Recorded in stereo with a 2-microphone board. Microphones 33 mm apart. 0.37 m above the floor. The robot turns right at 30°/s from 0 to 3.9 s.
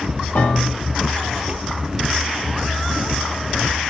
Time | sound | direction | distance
0.3 | a piano | 70° left (ahead or behind) | 1.0 m